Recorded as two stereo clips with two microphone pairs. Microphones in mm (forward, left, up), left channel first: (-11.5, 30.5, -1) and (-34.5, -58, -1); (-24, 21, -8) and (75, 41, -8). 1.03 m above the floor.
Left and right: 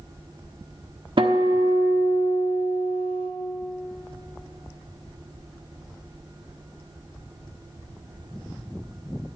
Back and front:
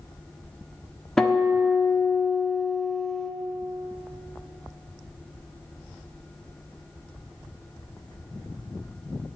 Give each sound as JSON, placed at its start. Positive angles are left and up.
{"t": 1.2, "sound": "a guitar", "azimuth_deg": -85, "distance_m": 1.1}